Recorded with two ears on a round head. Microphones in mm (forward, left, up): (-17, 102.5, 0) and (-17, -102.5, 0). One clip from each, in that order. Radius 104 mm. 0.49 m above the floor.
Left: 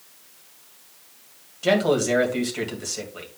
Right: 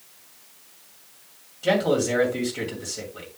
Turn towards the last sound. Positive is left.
turn(degrees=20)  # may be behind; listen again after turning